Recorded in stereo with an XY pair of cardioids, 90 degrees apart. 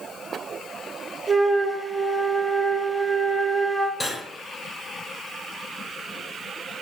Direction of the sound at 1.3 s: 25° right.